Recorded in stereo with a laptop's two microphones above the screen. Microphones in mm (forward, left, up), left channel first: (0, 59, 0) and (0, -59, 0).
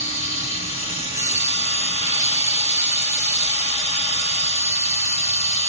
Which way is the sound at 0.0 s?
75° left (ahead or behind).